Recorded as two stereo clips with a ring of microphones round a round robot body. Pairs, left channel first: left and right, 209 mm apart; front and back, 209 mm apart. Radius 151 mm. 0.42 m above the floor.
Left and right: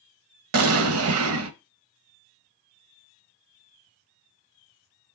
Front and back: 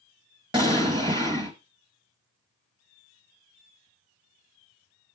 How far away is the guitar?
No guitar in this recording.